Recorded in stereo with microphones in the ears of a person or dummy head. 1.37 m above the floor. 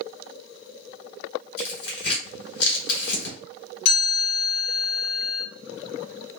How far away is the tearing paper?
About 2 m.